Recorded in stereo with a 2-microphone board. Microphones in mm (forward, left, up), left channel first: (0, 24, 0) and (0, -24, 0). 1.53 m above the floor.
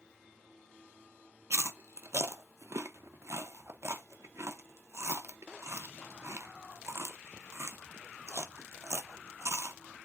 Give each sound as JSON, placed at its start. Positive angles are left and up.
{"t": 1.5, "sound": "chewing", "side_deg": -70, "distance_m": 0.9}